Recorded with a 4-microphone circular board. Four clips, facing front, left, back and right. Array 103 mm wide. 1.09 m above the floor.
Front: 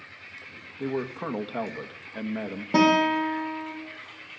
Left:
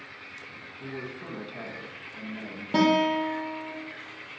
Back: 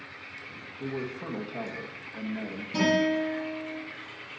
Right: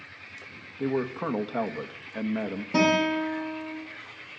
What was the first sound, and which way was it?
A man speaking, 60° right.